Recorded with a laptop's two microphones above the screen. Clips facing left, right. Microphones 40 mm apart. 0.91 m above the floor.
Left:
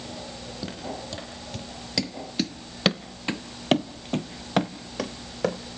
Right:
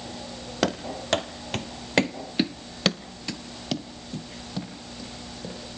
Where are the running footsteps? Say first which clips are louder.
Right 8 dB; 70° right (ahead or behind), 2 m; by 5.6 s 65° left (ahead or behind), 3 m.